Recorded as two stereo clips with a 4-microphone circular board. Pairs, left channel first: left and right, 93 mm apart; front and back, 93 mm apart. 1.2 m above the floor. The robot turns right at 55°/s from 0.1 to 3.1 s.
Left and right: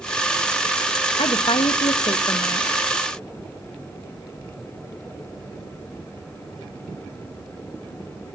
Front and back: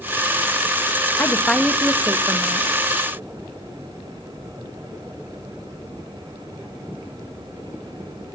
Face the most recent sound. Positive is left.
turn(degrees=170)